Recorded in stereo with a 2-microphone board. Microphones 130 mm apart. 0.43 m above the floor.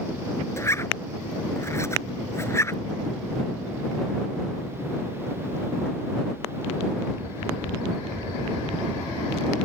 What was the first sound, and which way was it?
A zipper, 20° left (ahead or behind).